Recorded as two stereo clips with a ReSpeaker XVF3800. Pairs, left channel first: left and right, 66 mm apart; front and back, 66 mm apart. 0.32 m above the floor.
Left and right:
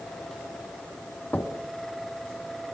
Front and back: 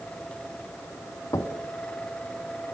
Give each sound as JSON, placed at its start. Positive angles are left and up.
{"t": 1.3, "sound": "knocking", "azimuth_deg": 25, "distance_m": 1.5}